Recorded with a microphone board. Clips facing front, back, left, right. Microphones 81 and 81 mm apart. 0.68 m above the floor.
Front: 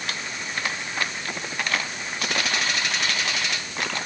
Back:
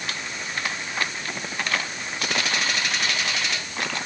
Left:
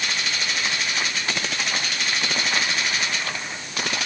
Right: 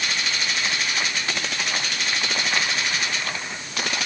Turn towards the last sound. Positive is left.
No sound to turn to.